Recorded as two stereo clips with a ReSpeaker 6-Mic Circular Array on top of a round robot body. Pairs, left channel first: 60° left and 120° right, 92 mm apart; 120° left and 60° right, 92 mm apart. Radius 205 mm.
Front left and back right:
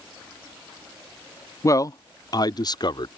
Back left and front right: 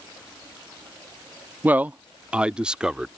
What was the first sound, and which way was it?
A man speaking, 10° left.